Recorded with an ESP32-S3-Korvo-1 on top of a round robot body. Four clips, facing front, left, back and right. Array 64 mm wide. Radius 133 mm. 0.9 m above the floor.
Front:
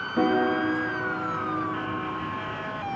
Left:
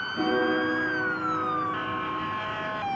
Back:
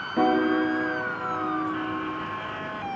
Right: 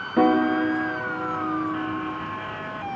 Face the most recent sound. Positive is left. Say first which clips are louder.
# right 6 dB, back 1 dB
turn(degrees=-95)